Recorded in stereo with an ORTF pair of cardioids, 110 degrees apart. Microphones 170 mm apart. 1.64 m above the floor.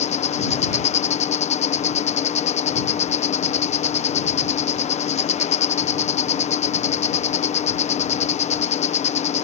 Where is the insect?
40° left.